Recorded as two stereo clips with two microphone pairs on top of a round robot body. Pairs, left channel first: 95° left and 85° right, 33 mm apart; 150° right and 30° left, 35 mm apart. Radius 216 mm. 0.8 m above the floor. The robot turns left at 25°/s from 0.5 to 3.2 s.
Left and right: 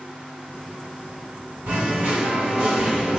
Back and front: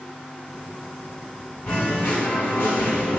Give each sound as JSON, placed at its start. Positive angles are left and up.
{"t": 1.7, "sound": "singing", "azimuth_deg": -110, "distance_m": 0.9}